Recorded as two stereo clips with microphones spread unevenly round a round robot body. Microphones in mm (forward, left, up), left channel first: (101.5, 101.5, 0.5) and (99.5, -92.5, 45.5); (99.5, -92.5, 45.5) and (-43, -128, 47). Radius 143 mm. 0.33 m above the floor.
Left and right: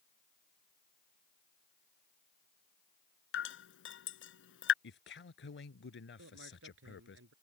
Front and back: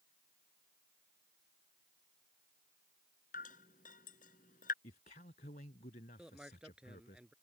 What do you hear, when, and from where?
3.3 s dripping: 70° left
4.8 s a man speaking: 70° left
6.2 s a man speaking: 80° right